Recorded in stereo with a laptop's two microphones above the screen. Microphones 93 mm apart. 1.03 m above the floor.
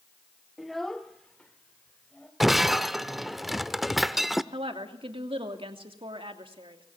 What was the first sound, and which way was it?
A child speaking, 5° right (ahead or behind).